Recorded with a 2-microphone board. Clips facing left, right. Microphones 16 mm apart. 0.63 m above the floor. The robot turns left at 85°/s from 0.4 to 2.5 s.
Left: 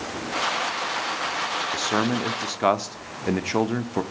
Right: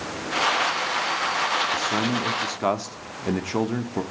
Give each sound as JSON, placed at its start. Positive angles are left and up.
{"t": 1.7, "sound": "a man speaking", "azimuth_deg": 95, "distance_m": 1.1}